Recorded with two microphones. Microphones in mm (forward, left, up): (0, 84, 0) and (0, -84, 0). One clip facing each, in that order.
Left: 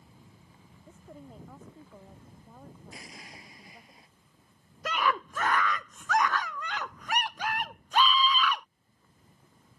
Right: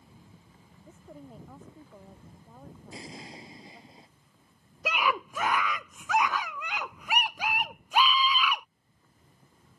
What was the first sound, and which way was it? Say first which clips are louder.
A woman speaking: right 1 dB; 5° right (ahead or behind).